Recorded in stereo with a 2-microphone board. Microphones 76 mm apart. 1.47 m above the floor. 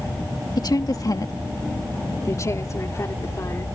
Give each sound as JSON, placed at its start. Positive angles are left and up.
{"t": 0.6, "sound": "a woman speaking", "side_deg": 60}